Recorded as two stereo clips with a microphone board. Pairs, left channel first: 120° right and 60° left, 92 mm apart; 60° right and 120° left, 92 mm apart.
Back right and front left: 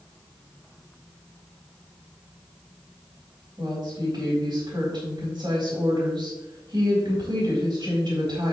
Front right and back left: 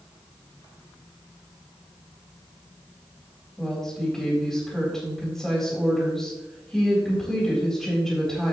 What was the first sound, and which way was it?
A woman speaking, 25° left.